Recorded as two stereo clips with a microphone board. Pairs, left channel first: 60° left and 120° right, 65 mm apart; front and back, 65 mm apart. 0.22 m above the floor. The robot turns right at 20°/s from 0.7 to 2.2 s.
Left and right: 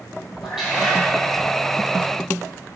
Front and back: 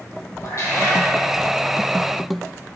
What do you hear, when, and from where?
0.4 s a cat meowing: 40° right, 4 m; by 1.0 s 30° right, 4 m